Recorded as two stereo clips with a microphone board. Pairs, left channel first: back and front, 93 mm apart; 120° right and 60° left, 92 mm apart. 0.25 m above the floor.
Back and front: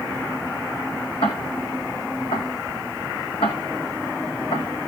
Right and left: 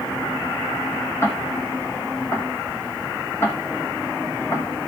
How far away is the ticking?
About 1.9 m.